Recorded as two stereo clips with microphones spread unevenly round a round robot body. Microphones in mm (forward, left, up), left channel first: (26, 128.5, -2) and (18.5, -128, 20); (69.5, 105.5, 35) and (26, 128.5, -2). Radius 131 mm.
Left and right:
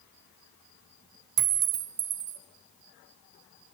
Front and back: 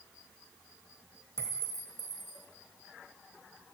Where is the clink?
110° right, 1.4 m.